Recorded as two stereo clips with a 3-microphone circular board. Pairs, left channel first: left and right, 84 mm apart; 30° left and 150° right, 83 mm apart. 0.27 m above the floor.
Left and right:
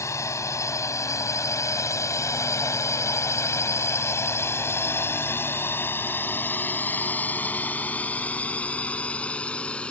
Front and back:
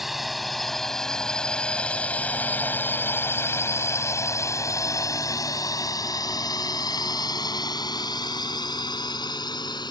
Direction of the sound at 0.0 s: 125° left.